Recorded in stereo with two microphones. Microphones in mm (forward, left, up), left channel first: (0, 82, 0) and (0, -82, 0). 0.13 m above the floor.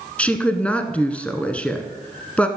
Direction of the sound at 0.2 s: 10° left (ahead or behind).